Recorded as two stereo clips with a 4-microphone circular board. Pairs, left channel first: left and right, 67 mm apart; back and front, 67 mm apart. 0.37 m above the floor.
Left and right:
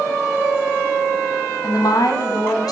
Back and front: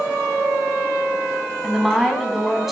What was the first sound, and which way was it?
A woman speaking, 85° left.